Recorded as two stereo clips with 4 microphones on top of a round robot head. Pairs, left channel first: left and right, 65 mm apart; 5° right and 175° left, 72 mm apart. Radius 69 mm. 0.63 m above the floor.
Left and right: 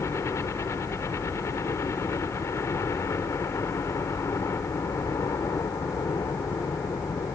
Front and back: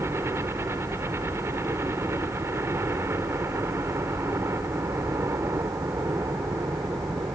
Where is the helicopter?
125° left.